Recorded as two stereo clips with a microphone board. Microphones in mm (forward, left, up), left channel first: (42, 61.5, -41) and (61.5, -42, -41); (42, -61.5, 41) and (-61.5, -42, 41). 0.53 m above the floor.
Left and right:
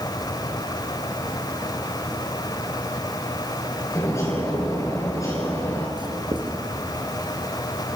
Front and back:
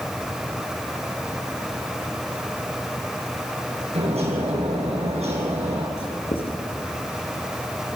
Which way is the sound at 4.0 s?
160° left.